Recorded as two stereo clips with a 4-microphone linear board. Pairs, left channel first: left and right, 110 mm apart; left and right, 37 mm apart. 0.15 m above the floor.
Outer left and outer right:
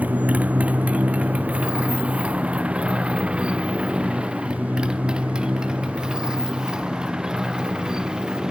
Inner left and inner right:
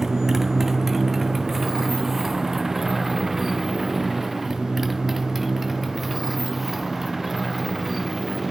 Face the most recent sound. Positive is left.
turn(degrees=-5)  # may be behind; listen again after turning